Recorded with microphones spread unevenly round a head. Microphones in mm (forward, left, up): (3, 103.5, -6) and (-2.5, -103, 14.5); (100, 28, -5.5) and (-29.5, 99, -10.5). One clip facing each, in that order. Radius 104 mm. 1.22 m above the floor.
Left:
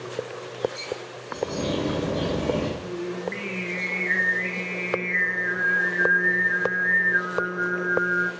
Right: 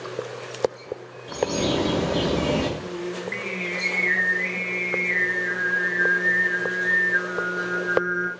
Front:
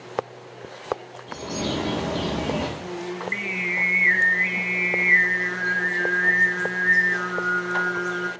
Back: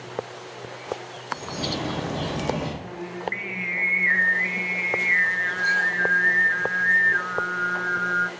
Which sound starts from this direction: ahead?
Singing, at 2.8 s.